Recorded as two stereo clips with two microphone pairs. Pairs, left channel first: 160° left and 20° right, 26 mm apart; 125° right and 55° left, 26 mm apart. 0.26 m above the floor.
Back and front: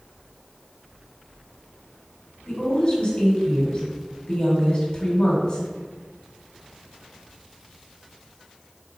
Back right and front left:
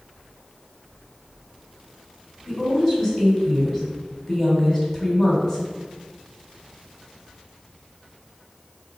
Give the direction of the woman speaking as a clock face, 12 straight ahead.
6 o'clock.